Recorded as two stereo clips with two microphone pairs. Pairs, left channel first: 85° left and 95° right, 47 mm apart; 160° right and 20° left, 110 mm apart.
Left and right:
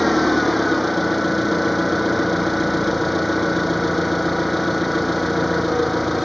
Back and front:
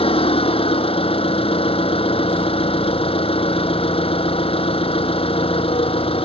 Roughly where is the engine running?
Behind.